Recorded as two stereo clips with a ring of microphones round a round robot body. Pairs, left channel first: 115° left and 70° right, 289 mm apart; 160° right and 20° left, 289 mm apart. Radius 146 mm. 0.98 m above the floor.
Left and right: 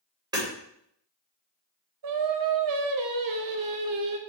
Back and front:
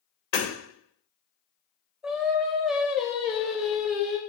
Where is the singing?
65° right, 1.1 m.